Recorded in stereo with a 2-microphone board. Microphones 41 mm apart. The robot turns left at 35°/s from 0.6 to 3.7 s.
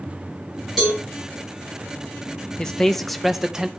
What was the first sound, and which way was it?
A cowbell, 10° left (ahead or behind).